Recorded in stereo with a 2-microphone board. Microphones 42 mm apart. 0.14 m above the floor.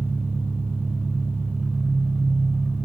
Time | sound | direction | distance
0.0 | an engine running | 50° right (ahead or behind) | 8.5 m